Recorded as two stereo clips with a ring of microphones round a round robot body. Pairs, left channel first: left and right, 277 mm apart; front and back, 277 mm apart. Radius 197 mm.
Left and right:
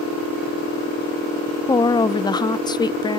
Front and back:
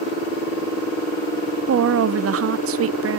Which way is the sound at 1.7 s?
165° left.